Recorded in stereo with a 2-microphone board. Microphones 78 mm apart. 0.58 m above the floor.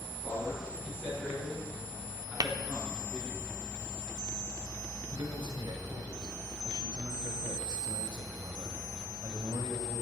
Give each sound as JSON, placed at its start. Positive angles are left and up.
{"t": 0.2, "sound": "a man speaking", "side_deg": -5, "distance_m": 7.5}
{"t": 2.4, "sound": "tapping", "side_deg": -55, "distance_m": 0.8}
{"t": 5.1, "sound": "a man speaking", "side_deg": -75, "distance_m": 2.0}